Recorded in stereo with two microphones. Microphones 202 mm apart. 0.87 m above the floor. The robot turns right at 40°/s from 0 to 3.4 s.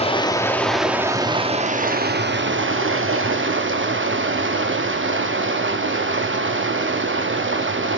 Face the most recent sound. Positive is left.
turn(degrees=-75)